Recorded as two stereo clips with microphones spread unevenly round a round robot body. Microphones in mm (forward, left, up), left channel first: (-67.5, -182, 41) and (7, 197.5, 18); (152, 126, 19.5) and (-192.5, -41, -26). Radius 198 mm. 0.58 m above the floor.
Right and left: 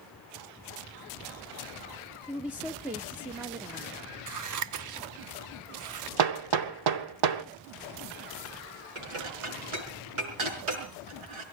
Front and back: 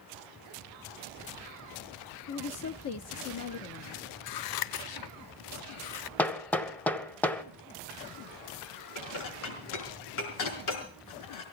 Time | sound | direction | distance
2.3 | a woman speaking | straight ahead | 0.7 m
4.3 | scissors | 50° left | 0.6 m
6.2 | hammering | 110° left | 1.0 m
8.9 | dishes clattering | 65° left | 5 m